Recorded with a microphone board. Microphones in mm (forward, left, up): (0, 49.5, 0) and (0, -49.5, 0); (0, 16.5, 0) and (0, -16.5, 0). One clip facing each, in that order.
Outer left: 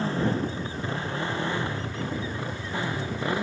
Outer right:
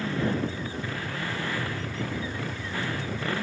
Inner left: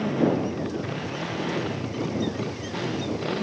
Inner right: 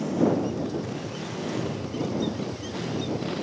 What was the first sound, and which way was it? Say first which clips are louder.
A motorcycle: outer left 1 dB, even; 35° left (ahead or behind).